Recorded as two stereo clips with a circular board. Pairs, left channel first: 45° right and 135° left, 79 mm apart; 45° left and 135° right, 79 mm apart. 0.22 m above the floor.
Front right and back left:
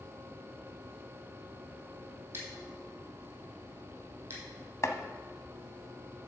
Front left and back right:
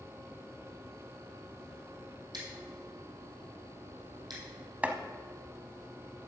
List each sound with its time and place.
2.3 s scissors: 165° right, 3 m
4.8 s chopping: 70° right, 0.8 m